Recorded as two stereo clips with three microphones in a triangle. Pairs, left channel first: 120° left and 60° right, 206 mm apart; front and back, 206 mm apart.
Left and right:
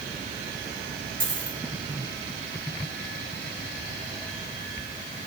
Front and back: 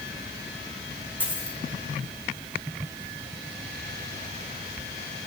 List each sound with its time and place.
1.2 s a dropped coin: 80° right, 3 m